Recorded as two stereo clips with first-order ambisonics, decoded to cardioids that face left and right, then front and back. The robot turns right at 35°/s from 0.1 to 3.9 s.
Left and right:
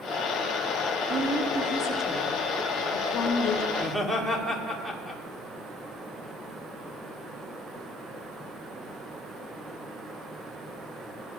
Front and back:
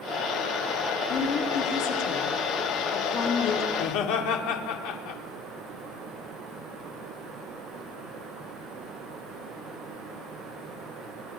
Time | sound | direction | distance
1.1 | a woman speaking | 35° right | 1.5 m
3.7 | laughter | 5° right | 1.9 m